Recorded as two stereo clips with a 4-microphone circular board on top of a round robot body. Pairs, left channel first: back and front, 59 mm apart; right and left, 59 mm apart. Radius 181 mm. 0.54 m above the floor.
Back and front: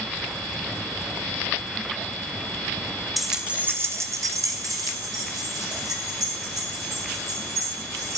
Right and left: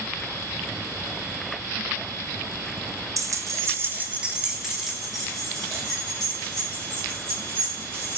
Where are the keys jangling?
90° left, 0.6 m; by 8.2 s 15° right, 2.5 m.